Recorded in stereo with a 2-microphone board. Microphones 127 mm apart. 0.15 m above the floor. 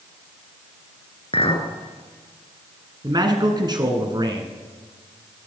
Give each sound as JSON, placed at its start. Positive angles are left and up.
{"t": 1.3, "sound": "a clink", "side_deg": 50, "distance_m": 1.2}
{"t": 3.0, "sound": "a man speaking", "side_deg": -35, "distance_m": 1.6}